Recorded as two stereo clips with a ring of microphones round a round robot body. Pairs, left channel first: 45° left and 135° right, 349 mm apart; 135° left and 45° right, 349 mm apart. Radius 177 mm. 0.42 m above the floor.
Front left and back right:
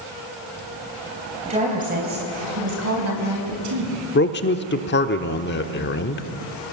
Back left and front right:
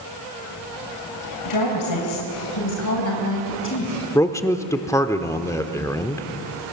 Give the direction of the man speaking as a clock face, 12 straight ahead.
10 o'clock.